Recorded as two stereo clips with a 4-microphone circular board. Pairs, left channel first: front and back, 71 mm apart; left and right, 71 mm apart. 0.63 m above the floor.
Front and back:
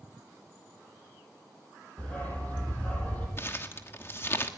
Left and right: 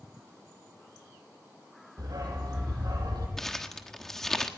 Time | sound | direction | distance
2.0 | a dog barking | 70° right | 7.5 m
3.4 | crumpling | 10° left | 1.4 m